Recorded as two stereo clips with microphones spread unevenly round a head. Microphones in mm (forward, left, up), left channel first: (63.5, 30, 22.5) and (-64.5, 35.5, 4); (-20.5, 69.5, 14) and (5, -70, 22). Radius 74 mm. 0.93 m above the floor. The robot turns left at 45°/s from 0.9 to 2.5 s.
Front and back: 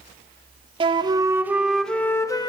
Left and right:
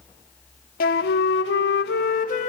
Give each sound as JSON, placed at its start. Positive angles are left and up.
{"t": 0.8, "sound": "a flute", "azimuth_deg": 125, "distance_m": 0.9}